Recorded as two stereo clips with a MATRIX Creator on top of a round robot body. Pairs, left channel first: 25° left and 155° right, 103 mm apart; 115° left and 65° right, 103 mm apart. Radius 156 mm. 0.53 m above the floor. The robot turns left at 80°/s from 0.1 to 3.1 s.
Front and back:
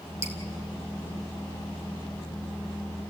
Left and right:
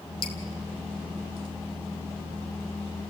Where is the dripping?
140° left, 2.5 m; by 0.3 s 130° left, 2.5 m.